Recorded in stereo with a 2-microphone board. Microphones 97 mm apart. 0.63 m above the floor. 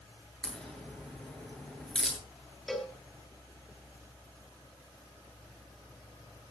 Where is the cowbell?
Centre (ahead or behind), 5 m.